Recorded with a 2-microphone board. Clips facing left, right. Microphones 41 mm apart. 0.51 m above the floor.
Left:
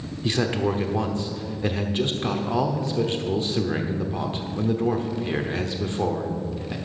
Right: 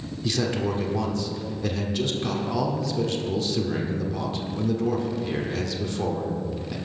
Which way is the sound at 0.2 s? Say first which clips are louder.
Left 2 dB; 30° left (ahead or behind).